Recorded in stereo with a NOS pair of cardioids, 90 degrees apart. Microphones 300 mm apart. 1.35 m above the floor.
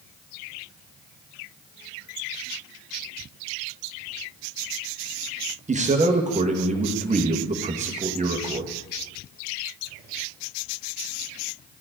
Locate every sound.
5.7 s a man speaking: 25° right, 1.5 m